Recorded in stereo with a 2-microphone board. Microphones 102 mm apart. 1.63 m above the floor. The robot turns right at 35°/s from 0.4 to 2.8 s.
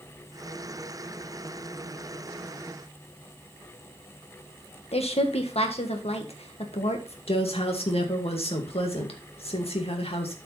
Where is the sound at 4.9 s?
75° left (ahead or behind), 1.6 m.